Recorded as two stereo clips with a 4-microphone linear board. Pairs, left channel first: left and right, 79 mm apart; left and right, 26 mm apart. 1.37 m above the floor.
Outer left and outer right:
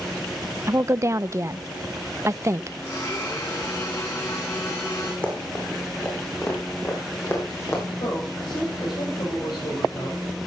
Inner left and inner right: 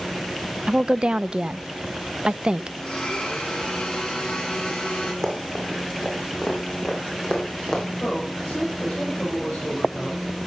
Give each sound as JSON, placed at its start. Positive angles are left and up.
{"t": 0.7, "sound": "a woman speaking", "side_deg": -35, "distance_m": 0.6}
{"t": 2.8, "sound": "a blender", "side_deg": 40, "distance_m": 9.0}
{"t": 5.2, "sound": "running footsteps", "side_deg": 15, "distance_m": 5.5}
{"t": 8.0, "sound": "a man speaking", "side_deg": 70, "distance_m": 6.0}